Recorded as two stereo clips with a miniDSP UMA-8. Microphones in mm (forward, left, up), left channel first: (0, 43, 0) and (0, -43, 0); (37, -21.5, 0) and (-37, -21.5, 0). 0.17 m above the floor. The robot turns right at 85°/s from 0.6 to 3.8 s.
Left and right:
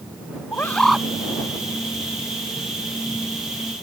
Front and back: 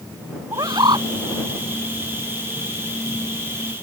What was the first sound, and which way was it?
A bird, 155° left.